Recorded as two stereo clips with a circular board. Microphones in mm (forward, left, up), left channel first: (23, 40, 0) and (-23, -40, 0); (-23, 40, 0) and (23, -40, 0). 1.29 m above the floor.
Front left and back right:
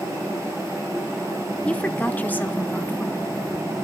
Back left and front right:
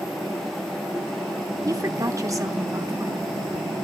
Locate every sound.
1.6 s a woman speaking: 15° right, 0.9 m; by 3.5 s 5° right, 2.5 m